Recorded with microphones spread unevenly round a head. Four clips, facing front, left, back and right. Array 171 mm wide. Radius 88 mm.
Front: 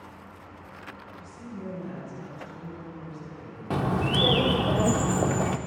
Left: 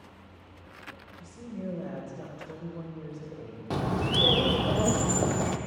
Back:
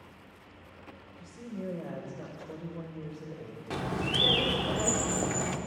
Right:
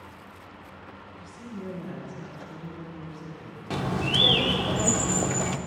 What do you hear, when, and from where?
1.2 s a woman speaking: 140° left, 3.5 m
3.7 s a bird: 30° left, 0.5 m